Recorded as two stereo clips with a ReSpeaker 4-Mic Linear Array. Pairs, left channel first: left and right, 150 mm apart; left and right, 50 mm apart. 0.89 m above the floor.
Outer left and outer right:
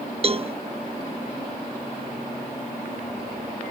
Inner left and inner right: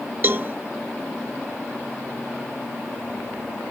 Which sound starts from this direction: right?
A cowbell, at 0.2 s.